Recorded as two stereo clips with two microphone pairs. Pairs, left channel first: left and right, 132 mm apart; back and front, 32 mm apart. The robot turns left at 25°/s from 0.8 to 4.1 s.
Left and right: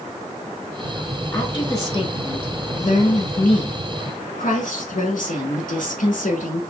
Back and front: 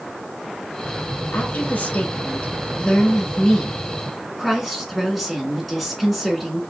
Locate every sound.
1.3 s a woman speaking: 165° left, 2.0 m; by 6.6 s 95° left, 2.0 m